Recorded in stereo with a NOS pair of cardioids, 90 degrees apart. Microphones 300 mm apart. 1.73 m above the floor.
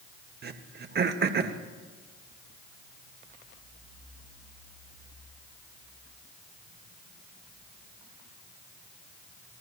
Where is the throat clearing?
35° right, 0.9 m.